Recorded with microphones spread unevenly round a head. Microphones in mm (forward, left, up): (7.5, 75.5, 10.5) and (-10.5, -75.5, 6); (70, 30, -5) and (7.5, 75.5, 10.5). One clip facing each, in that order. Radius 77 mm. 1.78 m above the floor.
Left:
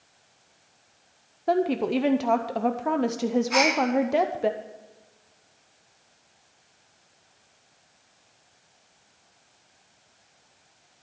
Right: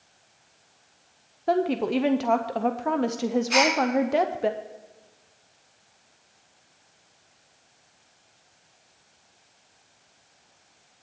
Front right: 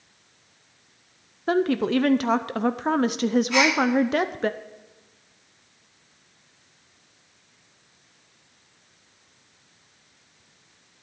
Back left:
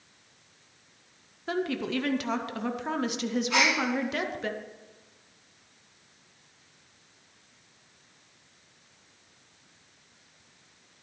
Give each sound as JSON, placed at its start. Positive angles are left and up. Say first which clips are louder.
{"t": 1.5, "sound": "a woman speaking", "louder": "even, front right 8 dB", "azimuth_deg": -5, "distance_m": 0.6}
{"t": 3.5, "sound": "a gasp", "louder": "right 1 dB, front right 2 dB", "azimuth_deg": -150, "distance_m": 4.5}